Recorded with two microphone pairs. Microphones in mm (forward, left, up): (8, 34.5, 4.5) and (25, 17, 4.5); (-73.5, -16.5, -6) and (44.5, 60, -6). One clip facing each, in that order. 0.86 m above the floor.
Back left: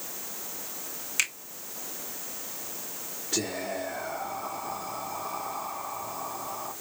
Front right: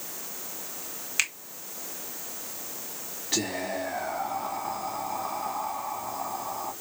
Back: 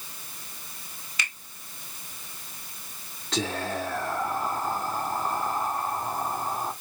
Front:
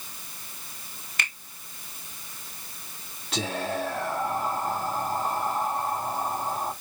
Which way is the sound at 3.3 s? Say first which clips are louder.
Front right 2 dB, even; 50° right.